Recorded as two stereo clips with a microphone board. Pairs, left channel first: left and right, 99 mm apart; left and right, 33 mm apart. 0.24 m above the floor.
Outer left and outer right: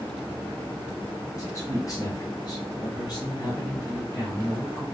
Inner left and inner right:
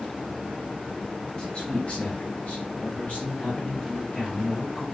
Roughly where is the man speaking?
Left.